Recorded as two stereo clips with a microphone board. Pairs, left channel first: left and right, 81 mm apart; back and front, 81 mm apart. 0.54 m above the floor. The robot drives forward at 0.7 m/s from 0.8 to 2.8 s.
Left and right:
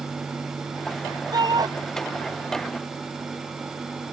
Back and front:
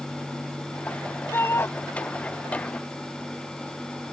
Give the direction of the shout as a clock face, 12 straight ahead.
4 o'clock.